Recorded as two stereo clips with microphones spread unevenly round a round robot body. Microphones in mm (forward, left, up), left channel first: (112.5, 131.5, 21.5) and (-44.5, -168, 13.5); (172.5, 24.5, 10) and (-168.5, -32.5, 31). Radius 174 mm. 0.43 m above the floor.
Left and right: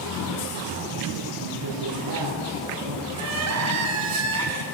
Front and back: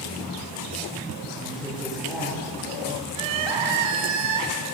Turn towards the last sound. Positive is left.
turn(degrees=-165)